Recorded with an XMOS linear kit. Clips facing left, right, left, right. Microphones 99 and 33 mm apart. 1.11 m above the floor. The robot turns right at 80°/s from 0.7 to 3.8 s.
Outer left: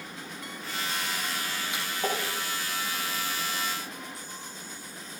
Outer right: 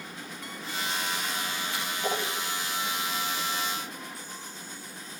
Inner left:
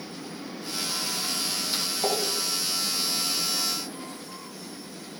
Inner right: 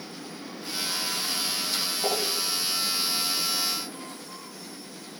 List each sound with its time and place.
1.7 s a splash: 20° left (ahead or behind), 8.5 m; by 2.2 s 60° left (ahead or behind), 8.5 m